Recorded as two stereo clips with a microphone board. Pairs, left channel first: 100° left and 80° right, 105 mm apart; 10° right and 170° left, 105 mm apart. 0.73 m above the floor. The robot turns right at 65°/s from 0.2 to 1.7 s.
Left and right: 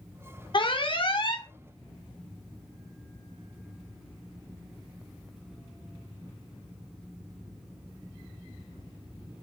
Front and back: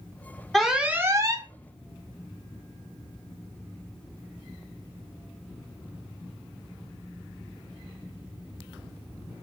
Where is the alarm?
75° left, 0.6 m; by 1.5 s 135° left, 0.6 m.